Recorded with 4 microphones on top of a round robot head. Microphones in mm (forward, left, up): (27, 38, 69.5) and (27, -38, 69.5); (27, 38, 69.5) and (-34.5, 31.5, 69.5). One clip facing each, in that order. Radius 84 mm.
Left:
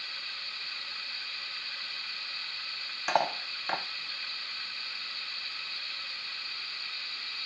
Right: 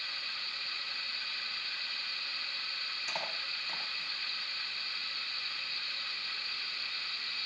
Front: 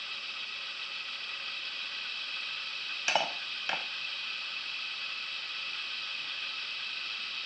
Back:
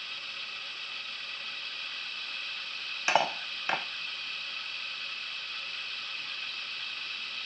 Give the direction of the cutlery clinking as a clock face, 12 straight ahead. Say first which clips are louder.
Left 13 dB, back 4 dB; 8 o'clock.